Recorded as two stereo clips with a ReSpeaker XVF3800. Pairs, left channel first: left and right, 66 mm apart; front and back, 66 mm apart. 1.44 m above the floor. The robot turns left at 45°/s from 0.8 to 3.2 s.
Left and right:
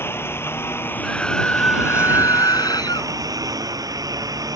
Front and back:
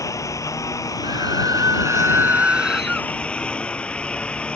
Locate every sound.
0.0 s a lawn mower: 35° left; by 4.6 s 75° right
1.0 s a scream: 175° left; by 3.1 s 85° left